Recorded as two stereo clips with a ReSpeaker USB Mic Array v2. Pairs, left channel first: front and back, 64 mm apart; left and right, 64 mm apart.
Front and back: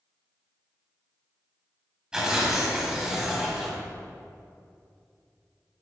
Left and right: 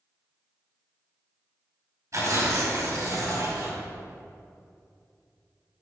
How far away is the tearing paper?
About 2.5 m.